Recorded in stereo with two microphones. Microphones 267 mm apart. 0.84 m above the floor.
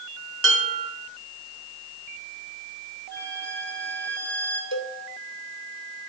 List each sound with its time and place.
0.4 s dishes clattering: 55° right (ahead or behind), 4 m
3.1 s a violin: 40° left (ahead or behind), 8.5 m
4.7 s a cowbell: 80° left, 1.5 m